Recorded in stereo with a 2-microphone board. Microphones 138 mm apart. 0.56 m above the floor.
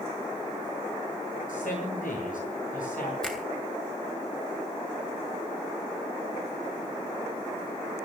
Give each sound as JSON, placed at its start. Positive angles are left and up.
{"t": 1.5, "sound": "a man speaking", "side_deg": 75, "distance_m": 9.0}
{"t": 3.2, "sound": "a finger snap", "side_deg": 5, "distance_m": 3.0}